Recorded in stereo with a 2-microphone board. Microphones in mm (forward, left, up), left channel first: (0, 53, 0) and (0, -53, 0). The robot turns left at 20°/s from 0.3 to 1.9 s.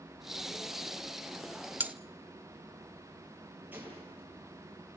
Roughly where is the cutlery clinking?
Centre.